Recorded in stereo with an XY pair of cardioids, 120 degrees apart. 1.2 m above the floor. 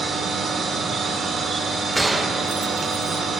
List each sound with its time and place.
0.0 s a machine running: 45° right, 3 m
1.9 s a gunshot: 10° right, 1.3 m